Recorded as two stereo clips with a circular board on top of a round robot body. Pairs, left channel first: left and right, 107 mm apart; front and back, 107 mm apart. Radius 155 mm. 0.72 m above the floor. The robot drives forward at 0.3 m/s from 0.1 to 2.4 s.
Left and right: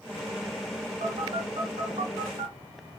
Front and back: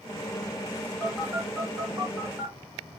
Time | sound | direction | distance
1.0 | a phone buzzing | 100° right | 1.0 m